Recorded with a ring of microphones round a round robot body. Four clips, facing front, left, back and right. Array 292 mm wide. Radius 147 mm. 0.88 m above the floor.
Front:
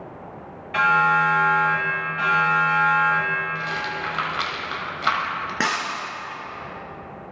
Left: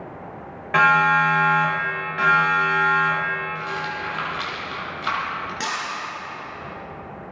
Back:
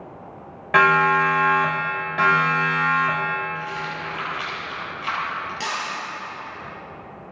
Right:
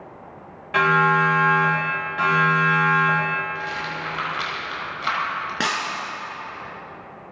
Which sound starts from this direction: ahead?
A rattle, at 3.5 s.